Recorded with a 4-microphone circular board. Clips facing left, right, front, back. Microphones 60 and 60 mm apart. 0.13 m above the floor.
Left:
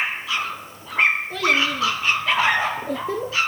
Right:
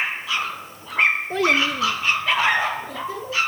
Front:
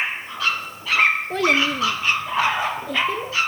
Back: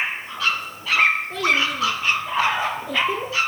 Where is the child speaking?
40° right, 1.3 m; by 3.4 s 100° left, 1.4 m.